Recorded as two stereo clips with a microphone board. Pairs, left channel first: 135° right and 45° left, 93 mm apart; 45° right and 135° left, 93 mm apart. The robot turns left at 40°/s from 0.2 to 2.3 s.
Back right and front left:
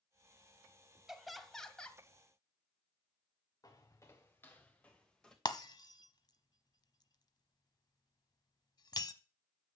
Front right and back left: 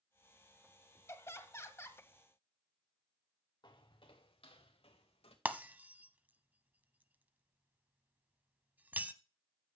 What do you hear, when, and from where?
1.1 s laughter: 35° right, 1.0 m; by 2.0 s 70° right, 1.0 m
3.6 s footsteps: 85° right, 1.8 m; by 5.3 s 50° right, 2.5 m
5.5 s breaking glass: 160° right, 0.7 m